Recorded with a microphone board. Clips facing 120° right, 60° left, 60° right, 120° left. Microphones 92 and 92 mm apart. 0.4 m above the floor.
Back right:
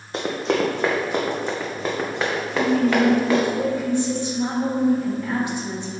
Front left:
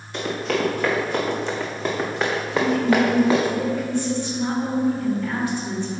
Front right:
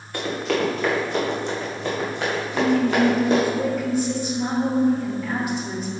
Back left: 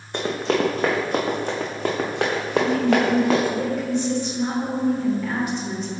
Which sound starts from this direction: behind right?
A woman speaking, at 2.5 s.